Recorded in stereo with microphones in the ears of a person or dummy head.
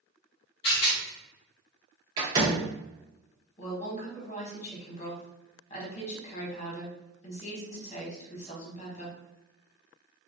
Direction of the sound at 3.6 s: 40° left (ahead or behind).